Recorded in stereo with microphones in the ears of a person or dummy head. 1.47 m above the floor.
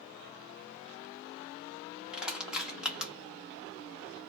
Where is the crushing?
5° right (ahead or behind), 1.1 m.